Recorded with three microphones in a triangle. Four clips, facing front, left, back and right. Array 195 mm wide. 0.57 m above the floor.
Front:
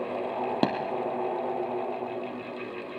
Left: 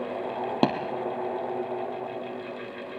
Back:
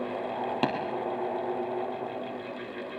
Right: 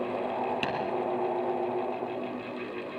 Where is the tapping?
60° left, 3.5 m.